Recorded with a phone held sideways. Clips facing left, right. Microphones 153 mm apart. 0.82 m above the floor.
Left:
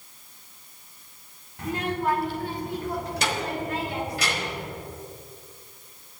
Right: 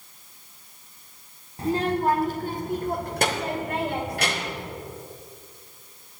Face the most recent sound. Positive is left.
turn(degrees=-60)  # may be behind; listen again after turning